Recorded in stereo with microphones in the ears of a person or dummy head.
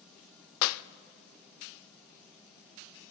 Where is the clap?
75° left (ahead or behind), 0.5 m.